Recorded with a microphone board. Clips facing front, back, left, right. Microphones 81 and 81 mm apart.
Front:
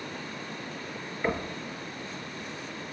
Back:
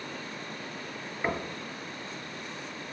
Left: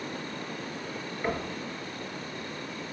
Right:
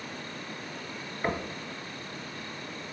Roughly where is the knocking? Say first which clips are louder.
Front 2 dB, even; behind right.